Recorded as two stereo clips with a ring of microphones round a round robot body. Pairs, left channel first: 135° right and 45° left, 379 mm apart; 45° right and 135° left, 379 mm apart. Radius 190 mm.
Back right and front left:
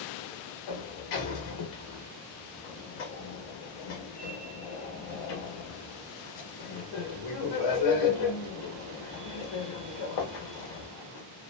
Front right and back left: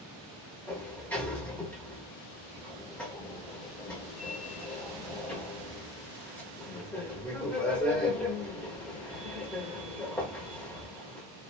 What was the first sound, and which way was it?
A sliding door, 130° right.